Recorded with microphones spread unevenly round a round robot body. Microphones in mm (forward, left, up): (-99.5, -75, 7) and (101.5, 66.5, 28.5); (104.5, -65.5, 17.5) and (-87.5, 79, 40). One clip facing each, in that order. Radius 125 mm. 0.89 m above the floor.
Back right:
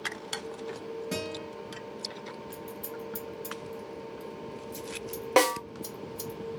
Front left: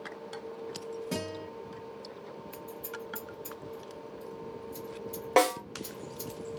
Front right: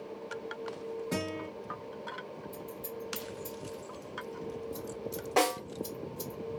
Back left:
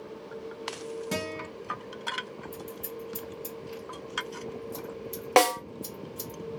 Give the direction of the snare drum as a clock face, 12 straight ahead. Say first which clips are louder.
Back right 1 dB, back left 6 dB; 7 o'clock.